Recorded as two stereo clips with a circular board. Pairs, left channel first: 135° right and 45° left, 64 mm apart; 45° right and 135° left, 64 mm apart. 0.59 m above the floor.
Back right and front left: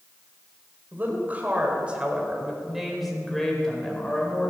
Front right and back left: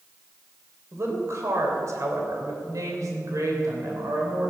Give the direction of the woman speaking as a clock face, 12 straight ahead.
9 o'clock.